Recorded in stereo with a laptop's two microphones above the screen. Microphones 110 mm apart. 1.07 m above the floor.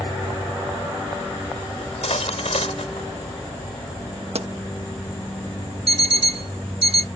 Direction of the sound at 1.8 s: 75° left (ahead or behind).